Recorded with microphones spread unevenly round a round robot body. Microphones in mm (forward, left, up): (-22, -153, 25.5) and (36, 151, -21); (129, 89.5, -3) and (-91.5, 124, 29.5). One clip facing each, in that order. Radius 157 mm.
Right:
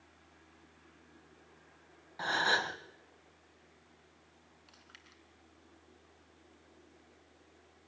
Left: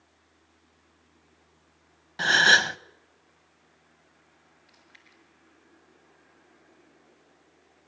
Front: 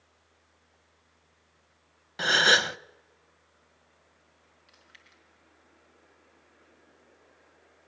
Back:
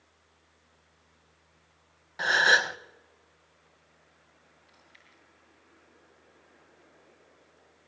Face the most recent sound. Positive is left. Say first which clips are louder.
# left 2 dB, back 1 dB
turn(degrees=-45)